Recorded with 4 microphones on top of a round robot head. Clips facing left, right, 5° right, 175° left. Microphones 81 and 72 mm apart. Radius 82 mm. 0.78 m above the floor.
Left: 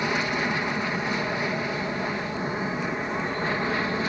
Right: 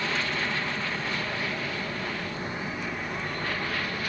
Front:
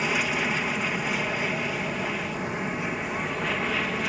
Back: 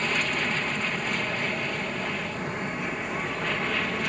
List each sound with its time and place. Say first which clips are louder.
0.0 s an aircraft: left 4 dB, front 1 dB; 65° left; by 4.1 s 80° left